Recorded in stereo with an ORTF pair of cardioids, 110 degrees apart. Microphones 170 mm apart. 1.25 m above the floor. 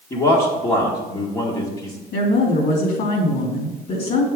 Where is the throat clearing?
I don't hear throat clearing.